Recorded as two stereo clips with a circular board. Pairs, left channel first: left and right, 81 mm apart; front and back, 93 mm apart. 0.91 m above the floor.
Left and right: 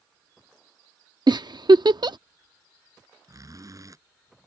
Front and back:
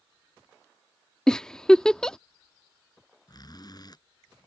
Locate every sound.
1.3 s a giggle: 80° right
3.3 s a zipper: 45° right